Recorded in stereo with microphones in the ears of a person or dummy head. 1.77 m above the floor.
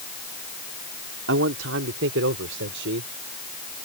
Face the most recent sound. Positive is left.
turn(degrees=-70)  # may be behind; listen again after turning